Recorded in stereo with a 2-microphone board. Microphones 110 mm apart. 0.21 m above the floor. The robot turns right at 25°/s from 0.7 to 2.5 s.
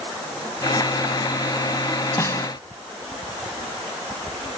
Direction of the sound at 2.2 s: 25° left (ahead or behind).